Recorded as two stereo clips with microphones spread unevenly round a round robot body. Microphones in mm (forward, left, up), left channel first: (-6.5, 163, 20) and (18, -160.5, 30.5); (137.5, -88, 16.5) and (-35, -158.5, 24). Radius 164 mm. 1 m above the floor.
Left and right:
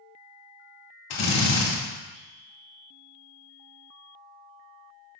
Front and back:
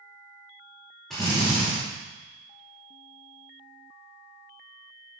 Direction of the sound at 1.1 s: 110° left.